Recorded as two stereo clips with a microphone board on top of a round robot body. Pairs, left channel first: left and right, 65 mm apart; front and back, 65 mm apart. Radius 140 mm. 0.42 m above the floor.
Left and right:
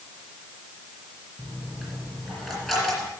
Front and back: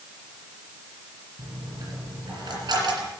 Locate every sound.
1.4 s a dropped coin: 175° right, 4.5 m